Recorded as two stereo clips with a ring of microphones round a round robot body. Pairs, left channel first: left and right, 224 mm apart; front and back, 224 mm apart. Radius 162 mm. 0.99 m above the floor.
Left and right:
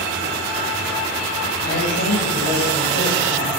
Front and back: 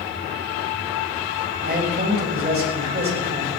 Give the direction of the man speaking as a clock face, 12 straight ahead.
7 o'clock.